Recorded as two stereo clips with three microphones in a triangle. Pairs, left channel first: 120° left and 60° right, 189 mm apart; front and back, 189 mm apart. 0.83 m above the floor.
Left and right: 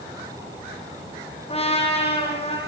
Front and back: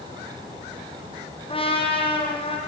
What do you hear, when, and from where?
1.5 s a trumpet: 60° left, 7 m